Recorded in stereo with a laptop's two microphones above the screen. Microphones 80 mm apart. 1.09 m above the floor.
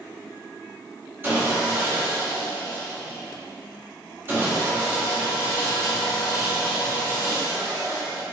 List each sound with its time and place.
1.2 s sawing: 30° right (ahead or behind), 0.8 m